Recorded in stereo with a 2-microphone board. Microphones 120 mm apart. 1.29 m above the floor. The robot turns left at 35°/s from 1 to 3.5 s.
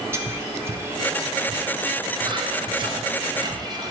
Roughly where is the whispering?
Right.